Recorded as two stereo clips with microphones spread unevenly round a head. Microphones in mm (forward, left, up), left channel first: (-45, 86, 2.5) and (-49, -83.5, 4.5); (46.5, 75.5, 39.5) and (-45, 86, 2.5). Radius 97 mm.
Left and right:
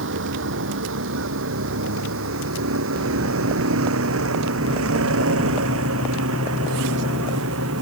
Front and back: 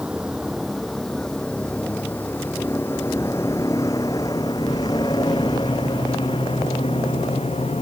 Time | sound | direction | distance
0.0 | a vehicle | 100° right | ?